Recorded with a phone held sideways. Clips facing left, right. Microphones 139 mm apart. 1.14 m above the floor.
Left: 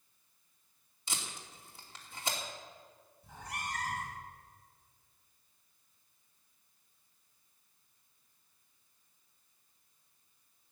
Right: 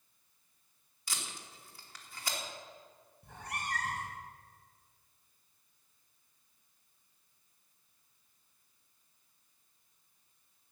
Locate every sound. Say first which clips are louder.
1.1 s tape being pulled: left 1 dB; 25° left (ahead or behind), 3 m
3.2 s a cat meowing: right 1 dB; 65° right (ahead or behind), 3 m